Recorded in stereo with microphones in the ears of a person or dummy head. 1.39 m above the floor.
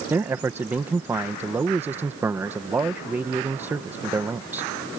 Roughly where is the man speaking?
Centre.